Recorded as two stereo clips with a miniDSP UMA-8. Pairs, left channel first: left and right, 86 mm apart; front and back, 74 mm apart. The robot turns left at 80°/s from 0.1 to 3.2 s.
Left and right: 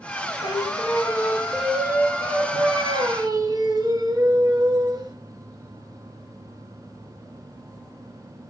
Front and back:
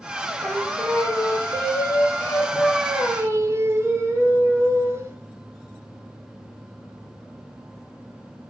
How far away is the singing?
About 1.6 m.